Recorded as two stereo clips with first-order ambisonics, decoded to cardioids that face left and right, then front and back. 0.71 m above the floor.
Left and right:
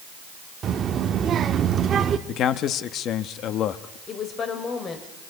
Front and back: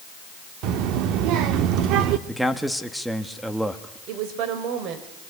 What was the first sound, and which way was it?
A child speaking, 150° right.